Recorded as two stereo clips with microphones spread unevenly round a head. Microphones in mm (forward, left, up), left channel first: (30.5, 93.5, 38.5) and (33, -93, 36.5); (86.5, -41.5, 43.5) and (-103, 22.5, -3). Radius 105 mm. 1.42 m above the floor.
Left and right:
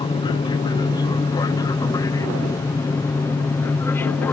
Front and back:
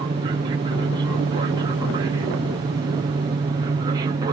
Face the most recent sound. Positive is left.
turn(degrees=165)